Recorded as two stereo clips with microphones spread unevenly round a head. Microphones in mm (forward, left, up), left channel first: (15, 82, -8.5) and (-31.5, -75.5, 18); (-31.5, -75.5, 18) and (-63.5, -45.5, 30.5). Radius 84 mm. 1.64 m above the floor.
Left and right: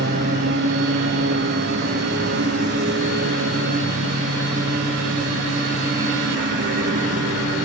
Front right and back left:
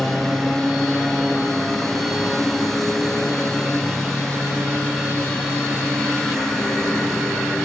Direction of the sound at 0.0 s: 130° right.